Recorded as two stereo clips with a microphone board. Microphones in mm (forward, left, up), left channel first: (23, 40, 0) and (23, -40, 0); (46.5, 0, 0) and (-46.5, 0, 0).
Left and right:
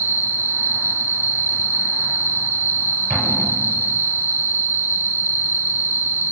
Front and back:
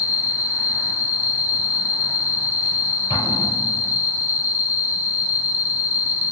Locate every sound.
0.0 s an insect: 125° right, 1.9 m
3.1 s an explosion: straight ahead, 3.5 m